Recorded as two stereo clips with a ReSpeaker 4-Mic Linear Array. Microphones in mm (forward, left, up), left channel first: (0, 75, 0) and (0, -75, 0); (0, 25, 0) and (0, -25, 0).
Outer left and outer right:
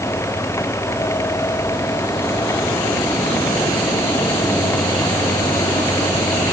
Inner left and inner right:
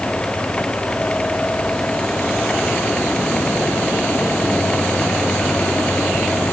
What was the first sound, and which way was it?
Only background noise.